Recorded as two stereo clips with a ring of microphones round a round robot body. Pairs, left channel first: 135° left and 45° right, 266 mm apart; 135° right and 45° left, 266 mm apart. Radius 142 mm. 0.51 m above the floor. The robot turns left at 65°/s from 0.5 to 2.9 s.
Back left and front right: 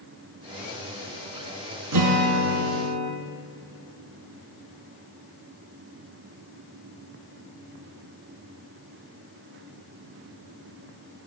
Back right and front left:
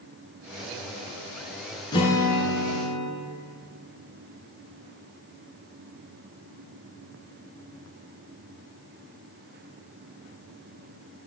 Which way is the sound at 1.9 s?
60° right.